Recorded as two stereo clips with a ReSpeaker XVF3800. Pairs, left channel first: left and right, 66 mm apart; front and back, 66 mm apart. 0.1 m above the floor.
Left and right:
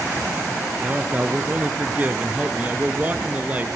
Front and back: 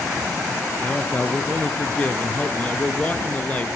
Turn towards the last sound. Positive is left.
turn(degrees=-45)